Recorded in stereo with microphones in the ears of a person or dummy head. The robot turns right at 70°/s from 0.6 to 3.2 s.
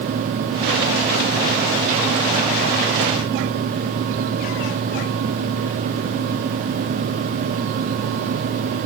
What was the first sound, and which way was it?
Only background noise.